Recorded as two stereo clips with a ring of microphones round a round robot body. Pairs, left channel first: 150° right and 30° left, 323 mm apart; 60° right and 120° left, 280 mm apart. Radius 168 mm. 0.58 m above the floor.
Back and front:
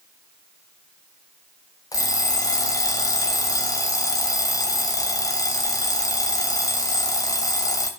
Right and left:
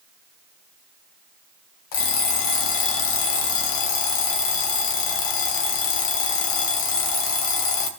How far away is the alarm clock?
About 1.9 m.